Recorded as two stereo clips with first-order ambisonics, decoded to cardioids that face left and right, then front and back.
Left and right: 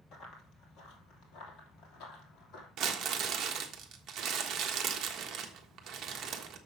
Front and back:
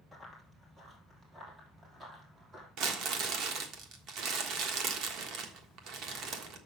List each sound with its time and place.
0.1 s running footsteps: 115° left, 2 m; by 2.7 s 120° left, 3.5 m
2.8 s crumpling: 145° right, 1.3 m